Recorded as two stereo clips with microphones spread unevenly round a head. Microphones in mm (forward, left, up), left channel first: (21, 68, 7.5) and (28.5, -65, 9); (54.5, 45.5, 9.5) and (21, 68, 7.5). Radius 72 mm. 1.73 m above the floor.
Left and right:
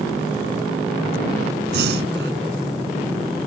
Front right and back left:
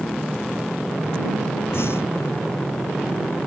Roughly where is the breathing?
Right.